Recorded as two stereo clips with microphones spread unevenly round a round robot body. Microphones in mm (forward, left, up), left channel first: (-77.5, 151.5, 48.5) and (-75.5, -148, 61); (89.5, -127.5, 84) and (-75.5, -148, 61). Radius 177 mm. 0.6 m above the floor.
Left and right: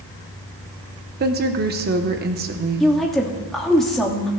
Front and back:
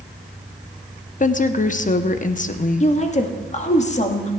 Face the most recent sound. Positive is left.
turn(degrees=5)